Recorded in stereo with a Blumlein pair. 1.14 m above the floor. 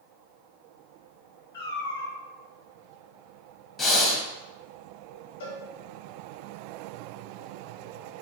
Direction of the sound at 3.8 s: 20° left.